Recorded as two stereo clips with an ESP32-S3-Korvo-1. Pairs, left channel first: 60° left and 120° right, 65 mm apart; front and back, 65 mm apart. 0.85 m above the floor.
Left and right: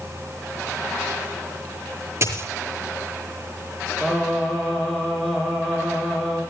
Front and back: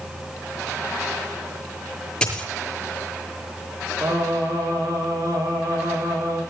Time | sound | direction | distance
2.2 | a dropped coin | 75° right | 6.5 m
4.0 | singing | 140° left | 8.5 m